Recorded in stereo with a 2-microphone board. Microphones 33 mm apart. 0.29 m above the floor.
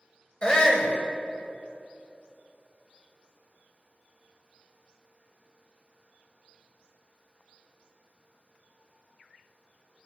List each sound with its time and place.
0.4 s a shout: 25° left (ahead or behind), 1.3 m